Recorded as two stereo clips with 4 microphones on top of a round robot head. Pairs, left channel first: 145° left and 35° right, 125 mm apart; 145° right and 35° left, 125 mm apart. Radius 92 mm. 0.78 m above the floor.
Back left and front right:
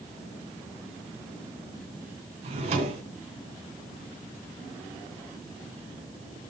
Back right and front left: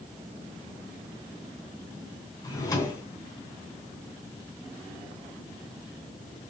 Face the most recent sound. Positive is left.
turn(degrees=-80)